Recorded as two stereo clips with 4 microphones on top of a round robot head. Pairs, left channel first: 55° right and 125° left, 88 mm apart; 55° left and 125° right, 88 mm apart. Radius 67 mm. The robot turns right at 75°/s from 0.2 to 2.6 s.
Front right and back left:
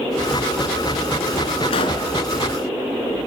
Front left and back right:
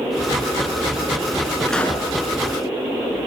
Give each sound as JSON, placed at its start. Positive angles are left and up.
{"t": 1.7, "sound": "a pop", "azimuth_deg": -35, "distance_m": 3.0}